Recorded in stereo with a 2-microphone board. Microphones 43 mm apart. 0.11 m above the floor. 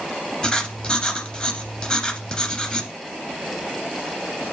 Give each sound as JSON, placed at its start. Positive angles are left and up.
{"t": 0.4, "sound": "writing", "side_deg": 20, "distance_m": 1.6}